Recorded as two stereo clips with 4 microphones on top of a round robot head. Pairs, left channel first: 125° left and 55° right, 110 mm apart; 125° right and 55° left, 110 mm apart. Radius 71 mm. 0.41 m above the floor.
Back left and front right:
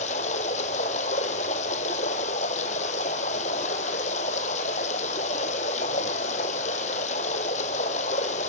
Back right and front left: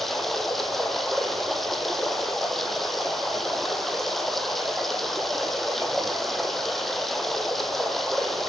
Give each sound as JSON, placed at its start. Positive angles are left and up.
{"t": 0.0, "sound": "running water", "azimuth_deg": 150, "distance_m": 1.5}